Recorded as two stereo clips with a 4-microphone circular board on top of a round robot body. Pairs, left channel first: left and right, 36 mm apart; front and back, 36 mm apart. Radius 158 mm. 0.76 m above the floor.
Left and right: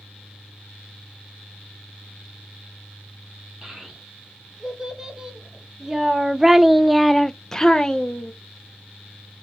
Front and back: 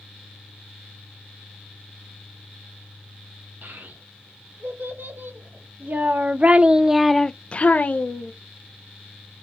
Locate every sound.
3.6 s a child speaking: 160° right, 2.0 m; by 8.3 s 20° left, 0.9 m